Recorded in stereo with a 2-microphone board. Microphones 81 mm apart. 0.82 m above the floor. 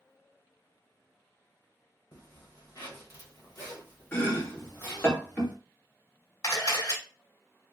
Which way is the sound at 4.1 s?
30° left (ahead or behind).